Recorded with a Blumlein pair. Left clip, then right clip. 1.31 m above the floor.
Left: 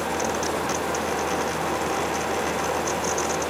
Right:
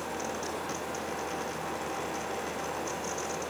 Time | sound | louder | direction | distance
0.0 | a fan | left 10 dB | 60° left | 0.8 m